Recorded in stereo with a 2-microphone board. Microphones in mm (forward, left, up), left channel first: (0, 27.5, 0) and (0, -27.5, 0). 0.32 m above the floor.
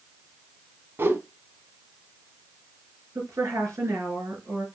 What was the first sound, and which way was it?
A whoosh, 45° right (ahead or behind).